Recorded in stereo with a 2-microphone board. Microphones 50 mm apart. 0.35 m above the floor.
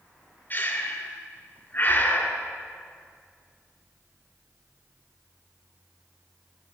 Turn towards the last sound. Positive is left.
turn(degrees=35)  # may be behind; listen again after turning